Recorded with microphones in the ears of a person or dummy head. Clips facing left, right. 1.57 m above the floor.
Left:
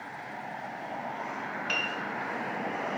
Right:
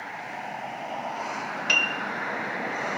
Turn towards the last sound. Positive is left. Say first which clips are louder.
# right 3 dB
turn(degrees=-65)  # may be behind; listen again after turning